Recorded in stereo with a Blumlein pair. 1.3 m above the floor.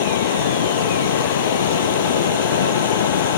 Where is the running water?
60° left.